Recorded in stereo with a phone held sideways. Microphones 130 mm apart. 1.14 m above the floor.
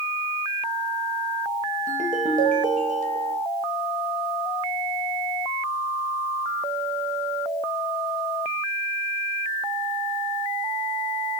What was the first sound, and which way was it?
A ringtone, 80° right.